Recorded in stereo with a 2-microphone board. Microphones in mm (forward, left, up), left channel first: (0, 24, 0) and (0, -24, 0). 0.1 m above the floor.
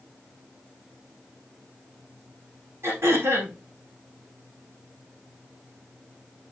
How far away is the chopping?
I don't hear chopping.